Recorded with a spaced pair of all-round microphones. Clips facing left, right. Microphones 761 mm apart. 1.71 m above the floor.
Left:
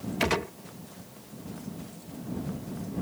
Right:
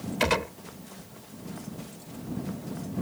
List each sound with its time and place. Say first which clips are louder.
0.2 s a gunshot: right 1 dB; 10° right (ahead or behind)